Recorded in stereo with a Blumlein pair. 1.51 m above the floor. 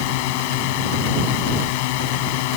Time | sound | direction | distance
0.0 | a drone | 45° left | ?